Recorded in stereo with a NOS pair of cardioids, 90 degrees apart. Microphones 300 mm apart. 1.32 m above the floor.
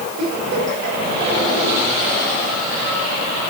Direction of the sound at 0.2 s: 60° right.